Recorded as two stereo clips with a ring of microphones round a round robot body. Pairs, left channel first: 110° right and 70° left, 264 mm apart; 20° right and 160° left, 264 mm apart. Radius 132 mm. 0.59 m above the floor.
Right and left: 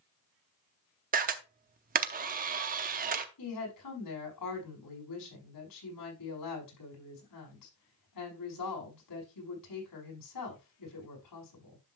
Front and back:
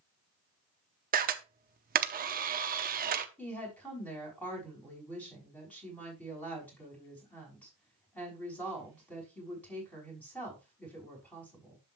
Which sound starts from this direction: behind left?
A camera shutter, at 1.1 s.